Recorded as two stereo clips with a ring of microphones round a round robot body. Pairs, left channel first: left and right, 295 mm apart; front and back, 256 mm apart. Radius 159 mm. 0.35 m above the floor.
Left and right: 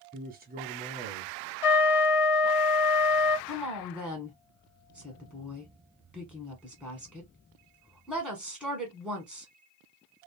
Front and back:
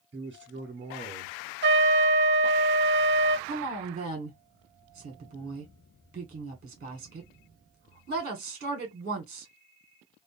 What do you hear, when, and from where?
0.1 s a man speaking: 130° right, 1.0 m
1.6 s a trumpet: 125° left, 0.6 m
3.5 s a woman speaking: 175° left, 1.0 m